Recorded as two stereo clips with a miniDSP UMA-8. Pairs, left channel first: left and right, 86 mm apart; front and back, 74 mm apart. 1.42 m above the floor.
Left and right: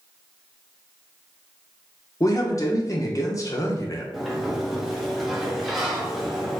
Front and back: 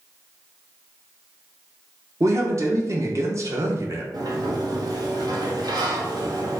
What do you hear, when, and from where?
2.2 s a man speaking: 140° left, 0.8 m
4.1 s a sliding door: 175° right, 0.7 m